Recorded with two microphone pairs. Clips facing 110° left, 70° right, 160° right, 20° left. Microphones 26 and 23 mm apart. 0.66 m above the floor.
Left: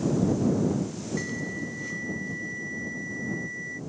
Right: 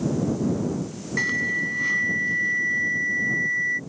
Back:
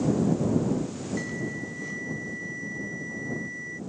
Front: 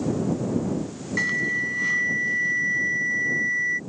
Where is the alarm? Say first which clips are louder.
Right 12 dB, front 13 dB; 20° right.